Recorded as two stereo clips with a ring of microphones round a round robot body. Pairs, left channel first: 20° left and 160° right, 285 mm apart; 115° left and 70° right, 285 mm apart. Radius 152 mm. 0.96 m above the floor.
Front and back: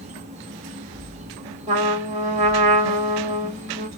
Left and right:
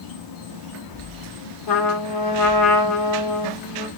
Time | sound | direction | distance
0.0 | an insect | 135° left | 0.8 m
1.7 | a trumpet | 135° left | 1.9 m